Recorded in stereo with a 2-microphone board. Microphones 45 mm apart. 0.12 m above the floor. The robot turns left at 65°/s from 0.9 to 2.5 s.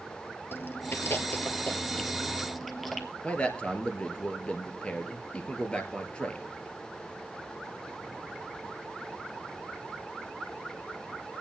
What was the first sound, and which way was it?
Chewing, 55° left (ahead or behind).